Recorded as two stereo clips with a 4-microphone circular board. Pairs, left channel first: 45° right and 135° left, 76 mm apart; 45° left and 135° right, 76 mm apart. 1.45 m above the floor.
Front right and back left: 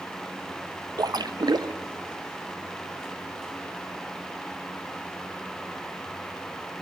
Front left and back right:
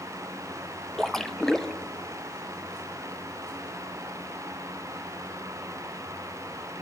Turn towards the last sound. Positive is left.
turn(degrees=130)